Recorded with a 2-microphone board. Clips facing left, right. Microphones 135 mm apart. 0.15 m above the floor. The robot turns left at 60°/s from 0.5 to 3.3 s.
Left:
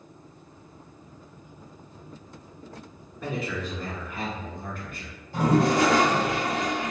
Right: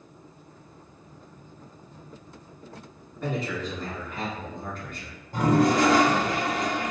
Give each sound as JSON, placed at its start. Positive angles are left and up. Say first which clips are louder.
{"t": 3.2, "sound": "a man speaking", "louder": "right 1 dB", "side_deg": 5, "distance_m": 1.1}
{"t": 5.3, "sound": "a toilet flushing", "louder": "right 1 dB", "side_deg": -45, "distance_m": 1.3}